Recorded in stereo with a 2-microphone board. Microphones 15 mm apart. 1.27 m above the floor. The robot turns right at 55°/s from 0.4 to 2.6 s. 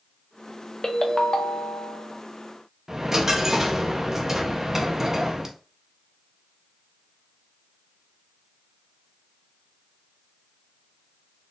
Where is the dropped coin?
30° right (ahead or behind), 0.6 m.